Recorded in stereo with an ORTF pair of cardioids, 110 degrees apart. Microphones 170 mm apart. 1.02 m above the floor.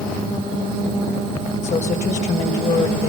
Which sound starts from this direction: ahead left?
A woman speaking, at 1.6 s.